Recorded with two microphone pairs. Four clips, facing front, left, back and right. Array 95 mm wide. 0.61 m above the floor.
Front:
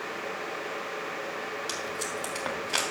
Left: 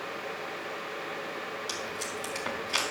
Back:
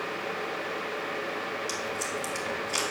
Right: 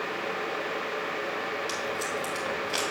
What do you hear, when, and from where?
1.7 s tape being pulled: 10° right, 2.5 m